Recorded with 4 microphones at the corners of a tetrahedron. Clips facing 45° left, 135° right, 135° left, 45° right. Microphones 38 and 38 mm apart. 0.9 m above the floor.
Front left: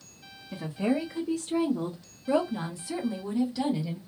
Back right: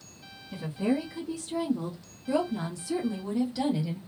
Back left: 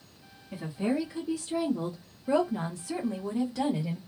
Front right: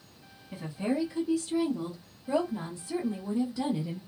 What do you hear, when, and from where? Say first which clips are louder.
0.5 s a woman speaking: even, back left 1 dB; 50° left, 1.2 m; by 4.0 s 145° left, 1.4 m